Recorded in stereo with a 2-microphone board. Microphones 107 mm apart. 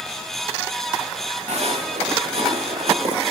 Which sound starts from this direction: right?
Footsteps, at 1.5 s.